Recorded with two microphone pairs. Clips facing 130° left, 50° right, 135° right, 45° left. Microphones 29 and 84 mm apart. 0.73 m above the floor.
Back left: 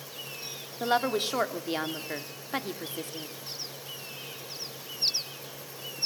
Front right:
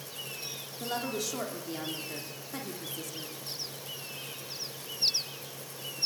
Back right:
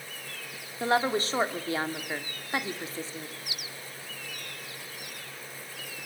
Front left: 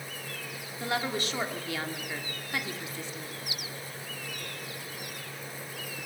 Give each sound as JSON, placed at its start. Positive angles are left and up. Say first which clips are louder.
{"t": 0.8, "sound": "a woman speaking", "louder": "back left 8 dB, back right 6 dB", "azimuth_deg": 170, "distance_m": 1.6}